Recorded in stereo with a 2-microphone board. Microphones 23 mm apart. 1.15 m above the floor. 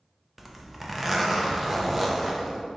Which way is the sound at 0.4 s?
10° right (ahead or behind).